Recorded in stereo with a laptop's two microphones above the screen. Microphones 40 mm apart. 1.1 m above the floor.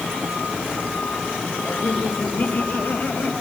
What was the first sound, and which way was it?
Laughter, 65° left (ahead or behind).